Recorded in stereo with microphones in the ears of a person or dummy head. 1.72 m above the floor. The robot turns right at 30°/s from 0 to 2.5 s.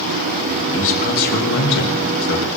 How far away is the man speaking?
About 3 m.